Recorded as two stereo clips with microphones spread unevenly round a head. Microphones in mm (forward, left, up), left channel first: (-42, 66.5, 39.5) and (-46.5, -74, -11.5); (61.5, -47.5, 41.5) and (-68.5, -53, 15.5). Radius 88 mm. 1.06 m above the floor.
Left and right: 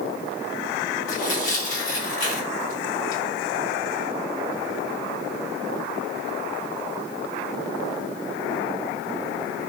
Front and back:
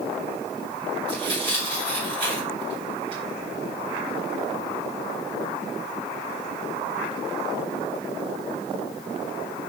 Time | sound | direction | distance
1.1 | tearing paper | 125° left | 3 m